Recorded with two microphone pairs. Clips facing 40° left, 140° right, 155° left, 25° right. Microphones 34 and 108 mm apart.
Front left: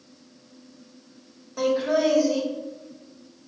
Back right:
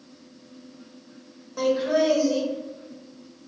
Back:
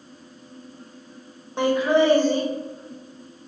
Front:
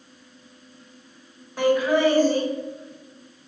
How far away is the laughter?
About 1.3 m.